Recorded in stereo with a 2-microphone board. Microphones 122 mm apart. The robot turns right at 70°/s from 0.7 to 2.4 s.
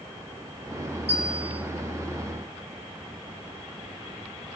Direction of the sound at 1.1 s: 110° right.